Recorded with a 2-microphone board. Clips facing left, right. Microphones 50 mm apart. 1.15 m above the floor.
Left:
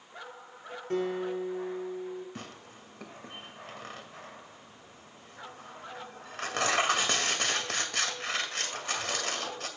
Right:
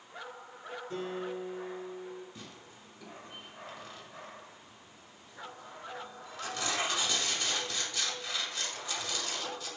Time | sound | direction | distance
0.9 | a guitar | 60° left (ahead or behind) | 3.5 m
2.4 | tearing paper | 60° left (ahead or behind) | 1.9 m